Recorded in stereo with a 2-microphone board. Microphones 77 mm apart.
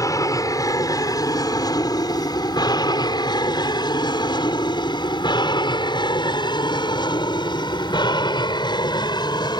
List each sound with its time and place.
0.0 s an aircraft: 50° left (ahead or behind); by 9.6 s 65° left (ahead or behind)